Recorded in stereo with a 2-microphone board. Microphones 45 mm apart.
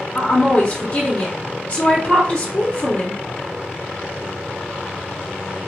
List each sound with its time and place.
0.1 s a woman speaking: 35° left (ahead or behind), 0.8 m